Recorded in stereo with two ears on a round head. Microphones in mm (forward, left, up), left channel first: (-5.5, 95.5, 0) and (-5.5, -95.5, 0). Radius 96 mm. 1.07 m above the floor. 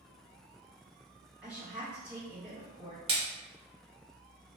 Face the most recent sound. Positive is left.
turn(degrees=-30)  # may be behind; listen again after turning